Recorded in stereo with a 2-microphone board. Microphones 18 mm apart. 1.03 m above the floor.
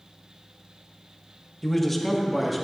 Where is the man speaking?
20° left (ahead or behind), 1.2 m; by 2.6 s 5° right (ahead or behind), 2 m.